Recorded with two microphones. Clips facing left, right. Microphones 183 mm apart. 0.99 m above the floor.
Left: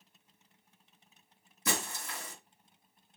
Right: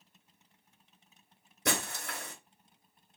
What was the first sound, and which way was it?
Breaking glass, 70° right (ahead or behind).